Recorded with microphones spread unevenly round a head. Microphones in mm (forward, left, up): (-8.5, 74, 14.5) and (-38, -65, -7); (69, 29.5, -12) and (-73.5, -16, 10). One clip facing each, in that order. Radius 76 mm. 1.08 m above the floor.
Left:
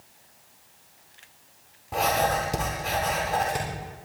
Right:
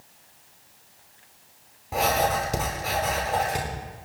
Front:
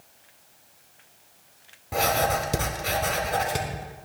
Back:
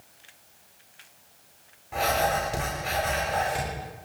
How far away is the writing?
About 4 m.